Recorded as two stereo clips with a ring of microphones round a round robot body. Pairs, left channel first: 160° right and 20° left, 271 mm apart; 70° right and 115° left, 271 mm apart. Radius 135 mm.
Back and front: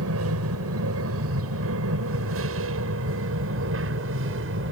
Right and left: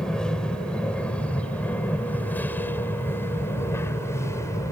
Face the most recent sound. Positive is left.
turn(degrees=10)